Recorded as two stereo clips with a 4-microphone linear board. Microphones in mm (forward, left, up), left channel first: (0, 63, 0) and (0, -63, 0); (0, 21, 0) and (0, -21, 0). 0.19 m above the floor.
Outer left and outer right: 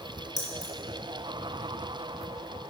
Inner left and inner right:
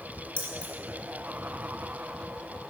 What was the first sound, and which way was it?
Keys jangling, 30° left (ahead or behind).